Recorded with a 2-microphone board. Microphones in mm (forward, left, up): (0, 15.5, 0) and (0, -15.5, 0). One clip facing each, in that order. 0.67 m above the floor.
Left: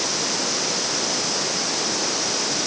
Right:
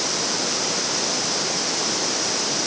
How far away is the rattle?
I don't hear a rattle.